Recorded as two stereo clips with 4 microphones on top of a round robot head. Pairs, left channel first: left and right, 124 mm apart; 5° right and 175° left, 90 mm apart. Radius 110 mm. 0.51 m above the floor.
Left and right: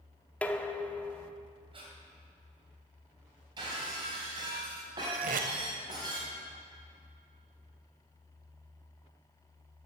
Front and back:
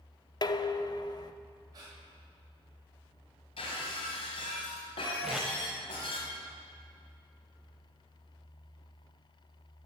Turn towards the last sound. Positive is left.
turn(degrees=-95)